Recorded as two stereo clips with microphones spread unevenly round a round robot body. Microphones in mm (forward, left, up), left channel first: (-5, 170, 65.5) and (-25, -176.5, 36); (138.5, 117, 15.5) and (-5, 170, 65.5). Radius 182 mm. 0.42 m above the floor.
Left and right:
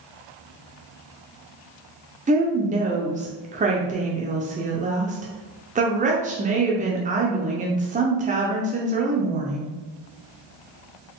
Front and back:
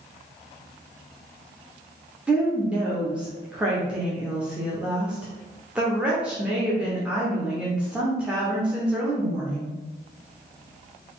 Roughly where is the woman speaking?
Right.